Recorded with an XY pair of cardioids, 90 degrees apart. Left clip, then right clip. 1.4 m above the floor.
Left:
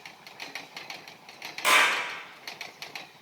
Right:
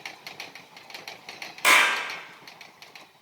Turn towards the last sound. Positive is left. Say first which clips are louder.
# right 3 dB
turn(degrees=-40)